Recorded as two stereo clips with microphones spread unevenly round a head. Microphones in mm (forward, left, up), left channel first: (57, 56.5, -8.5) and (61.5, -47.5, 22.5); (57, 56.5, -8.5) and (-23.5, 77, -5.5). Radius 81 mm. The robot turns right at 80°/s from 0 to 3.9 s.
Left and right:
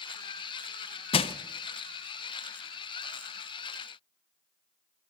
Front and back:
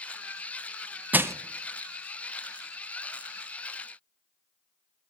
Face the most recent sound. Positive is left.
turn(degrees=-45)